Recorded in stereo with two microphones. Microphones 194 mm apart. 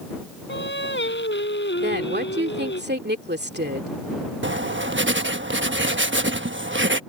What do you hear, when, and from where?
0.5 s singing: 70° left (ahead or behind)
1.8 s a woman speaking: 60° right (ahead or behind)
4.4 s writing: 75° right (ahead or behind)